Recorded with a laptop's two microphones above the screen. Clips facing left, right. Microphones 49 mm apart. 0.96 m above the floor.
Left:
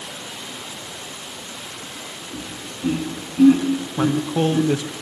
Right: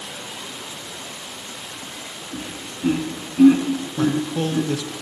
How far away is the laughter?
About 2 m.